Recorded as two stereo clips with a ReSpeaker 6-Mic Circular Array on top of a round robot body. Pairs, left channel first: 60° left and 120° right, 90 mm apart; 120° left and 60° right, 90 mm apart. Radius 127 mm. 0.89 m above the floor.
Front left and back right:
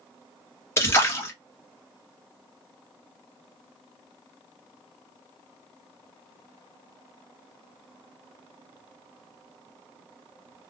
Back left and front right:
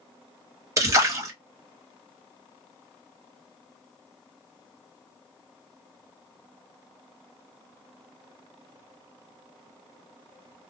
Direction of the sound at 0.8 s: 5° right.